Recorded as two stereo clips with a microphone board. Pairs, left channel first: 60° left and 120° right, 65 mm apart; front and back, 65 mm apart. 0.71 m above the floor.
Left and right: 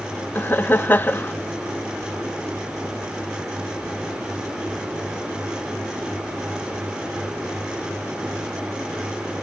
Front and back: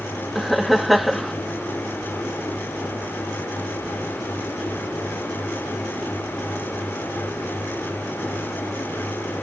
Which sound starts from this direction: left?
Laughter, at 0.3 s.